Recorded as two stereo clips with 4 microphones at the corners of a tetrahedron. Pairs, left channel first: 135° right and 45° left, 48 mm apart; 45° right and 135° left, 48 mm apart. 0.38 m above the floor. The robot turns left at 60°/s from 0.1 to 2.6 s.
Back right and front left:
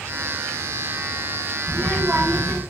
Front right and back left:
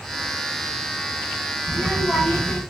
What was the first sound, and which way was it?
A child speaking, 90° left.